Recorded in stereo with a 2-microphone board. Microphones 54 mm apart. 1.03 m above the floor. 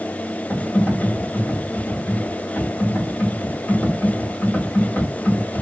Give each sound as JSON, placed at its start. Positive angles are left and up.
{"t": 0.5, "sound": "typing on a keyboard", "side_deg": 45, "distance_m": 1.3}